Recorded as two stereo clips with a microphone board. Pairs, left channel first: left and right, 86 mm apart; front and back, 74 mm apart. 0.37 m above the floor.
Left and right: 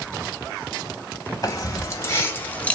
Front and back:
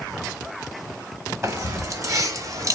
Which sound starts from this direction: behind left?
Keys jangling, at 1.4 s.